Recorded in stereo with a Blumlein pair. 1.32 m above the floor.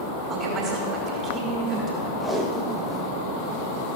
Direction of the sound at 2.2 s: 5° left.